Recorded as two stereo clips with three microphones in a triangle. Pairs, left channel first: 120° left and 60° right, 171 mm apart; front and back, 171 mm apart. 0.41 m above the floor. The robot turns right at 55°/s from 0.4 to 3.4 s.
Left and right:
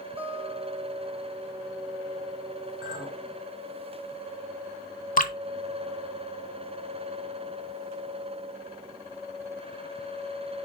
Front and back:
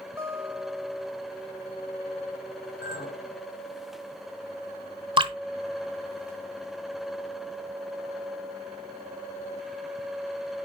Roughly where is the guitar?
Right.